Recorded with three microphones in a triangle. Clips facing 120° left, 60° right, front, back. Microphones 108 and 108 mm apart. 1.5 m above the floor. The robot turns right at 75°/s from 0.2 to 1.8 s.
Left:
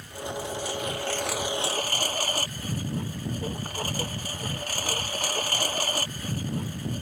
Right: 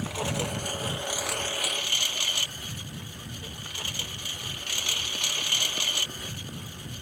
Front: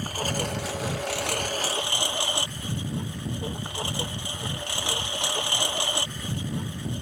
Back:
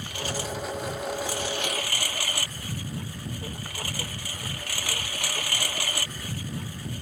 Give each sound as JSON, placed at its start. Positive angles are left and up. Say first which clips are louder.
{"t": 0.0, "sound": "a lawn mower", "louder": "right 3 dB, front 3 dB", "azimuth_deg": -50}